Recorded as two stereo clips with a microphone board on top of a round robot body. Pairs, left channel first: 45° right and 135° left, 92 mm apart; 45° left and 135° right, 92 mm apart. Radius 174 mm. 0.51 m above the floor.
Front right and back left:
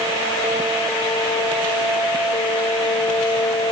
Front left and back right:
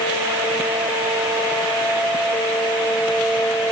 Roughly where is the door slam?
No door slam in this recording.